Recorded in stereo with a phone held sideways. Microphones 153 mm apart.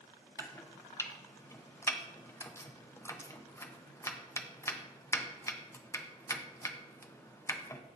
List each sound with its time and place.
0.4 s chopping: 20° left (ahead or behind), 0.8 m